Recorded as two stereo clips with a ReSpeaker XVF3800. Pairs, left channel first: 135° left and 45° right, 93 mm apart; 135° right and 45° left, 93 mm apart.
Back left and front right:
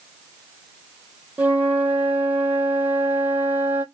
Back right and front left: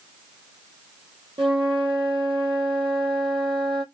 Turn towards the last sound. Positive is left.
turn(degrees=25)